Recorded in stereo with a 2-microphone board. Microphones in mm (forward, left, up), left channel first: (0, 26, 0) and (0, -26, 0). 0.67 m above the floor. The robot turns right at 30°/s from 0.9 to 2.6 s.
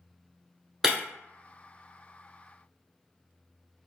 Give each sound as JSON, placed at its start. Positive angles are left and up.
{"t": 0.8, "sound": "breaking glass", "side_deg": -10, "distance_m": 0.8}